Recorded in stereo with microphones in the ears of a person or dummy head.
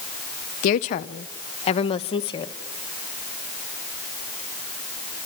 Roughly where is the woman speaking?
Left.